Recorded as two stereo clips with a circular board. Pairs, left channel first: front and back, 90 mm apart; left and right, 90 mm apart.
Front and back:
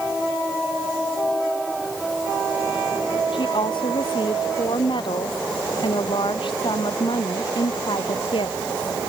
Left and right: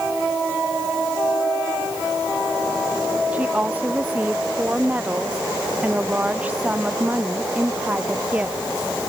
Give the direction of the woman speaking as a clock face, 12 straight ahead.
1 o'clock.